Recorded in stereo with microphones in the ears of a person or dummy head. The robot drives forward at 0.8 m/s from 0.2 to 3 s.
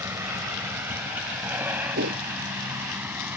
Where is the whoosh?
60° right (ahead or behind).